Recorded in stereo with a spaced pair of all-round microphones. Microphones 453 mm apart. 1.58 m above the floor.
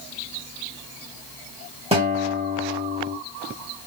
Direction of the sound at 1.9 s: 15° right (ahead or behind).